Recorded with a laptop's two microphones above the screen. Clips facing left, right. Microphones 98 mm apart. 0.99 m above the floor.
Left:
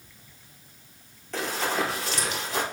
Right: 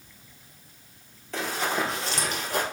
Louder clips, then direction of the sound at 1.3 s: Even; centre (ahead or behind).